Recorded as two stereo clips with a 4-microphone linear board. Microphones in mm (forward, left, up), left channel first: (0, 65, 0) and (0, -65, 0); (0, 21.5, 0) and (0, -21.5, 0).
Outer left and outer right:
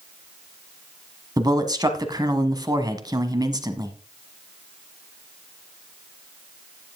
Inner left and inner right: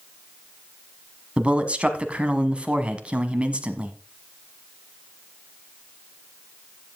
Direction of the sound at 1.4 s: 30° right (ahead or behind).